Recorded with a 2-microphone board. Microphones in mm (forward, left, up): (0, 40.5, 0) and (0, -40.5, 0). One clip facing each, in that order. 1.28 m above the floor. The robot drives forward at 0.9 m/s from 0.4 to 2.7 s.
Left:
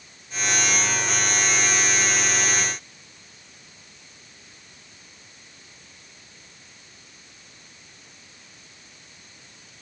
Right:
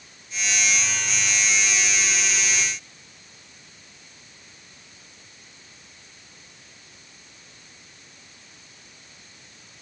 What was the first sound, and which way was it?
Only background noise.